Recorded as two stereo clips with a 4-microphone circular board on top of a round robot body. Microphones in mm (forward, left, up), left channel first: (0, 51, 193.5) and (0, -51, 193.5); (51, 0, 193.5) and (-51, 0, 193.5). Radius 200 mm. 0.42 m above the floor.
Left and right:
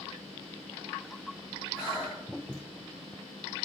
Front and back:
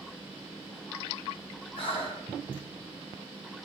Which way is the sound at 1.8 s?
40° left.